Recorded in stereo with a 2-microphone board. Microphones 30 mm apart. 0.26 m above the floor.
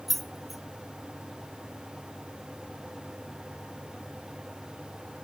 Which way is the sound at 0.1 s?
Centre (ahead or behind).